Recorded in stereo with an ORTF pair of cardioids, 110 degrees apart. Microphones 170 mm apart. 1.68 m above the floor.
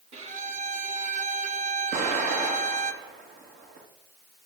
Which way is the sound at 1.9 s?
70° right.